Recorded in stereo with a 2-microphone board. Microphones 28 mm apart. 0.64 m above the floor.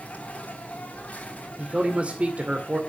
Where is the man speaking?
55° right (ahead or behind), 1.9 m.